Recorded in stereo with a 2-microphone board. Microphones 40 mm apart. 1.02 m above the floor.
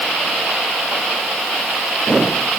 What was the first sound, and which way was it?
Only background noise.